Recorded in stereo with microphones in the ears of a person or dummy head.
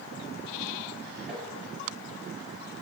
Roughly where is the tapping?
Centre.